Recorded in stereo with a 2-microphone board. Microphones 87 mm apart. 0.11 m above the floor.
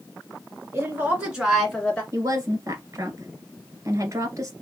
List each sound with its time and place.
0.7 s a woman speaking: 30° right (ahead or behind), 1.8 m; by 2.0 s 15° left (ahead or behind), 1.6 m
2.1 s a woman speaking: 40° right (ahead or behind), 1.4 m